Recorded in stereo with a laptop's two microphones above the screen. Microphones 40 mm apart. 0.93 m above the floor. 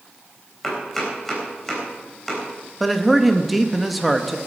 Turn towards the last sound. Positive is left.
turn(degrees=0)  # may be behind; listen again after turning